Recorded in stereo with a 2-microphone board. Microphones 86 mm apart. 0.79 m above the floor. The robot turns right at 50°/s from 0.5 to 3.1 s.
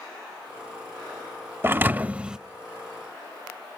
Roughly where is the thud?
Ahead right.